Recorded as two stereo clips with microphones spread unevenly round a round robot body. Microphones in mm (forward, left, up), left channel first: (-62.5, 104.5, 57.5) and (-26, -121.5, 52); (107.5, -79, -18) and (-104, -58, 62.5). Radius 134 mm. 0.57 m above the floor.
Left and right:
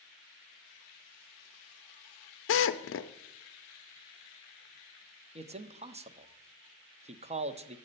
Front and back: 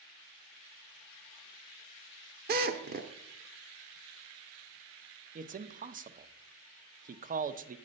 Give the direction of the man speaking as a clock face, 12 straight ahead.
4 o'clock.